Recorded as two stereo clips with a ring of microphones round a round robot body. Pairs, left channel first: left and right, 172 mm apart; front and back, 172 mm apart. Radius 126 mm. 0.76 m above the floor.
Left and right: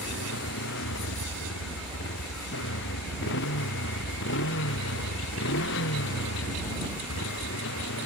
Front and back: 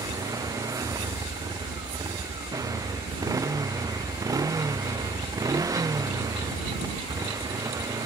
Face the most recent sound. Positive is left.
turn(degrees=110)